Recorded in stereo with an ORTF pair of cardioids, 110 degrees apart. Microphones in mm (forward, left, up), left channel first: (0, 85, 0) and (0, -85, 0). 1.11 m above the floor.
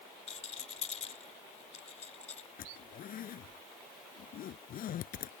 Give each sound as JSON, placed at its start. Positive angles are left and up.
{"t": 0.3, "sound": "a rattle", "azimuth_deg": 40}
{"t": 2.6, "sound": "a zipper", "azimuth_deg": 60}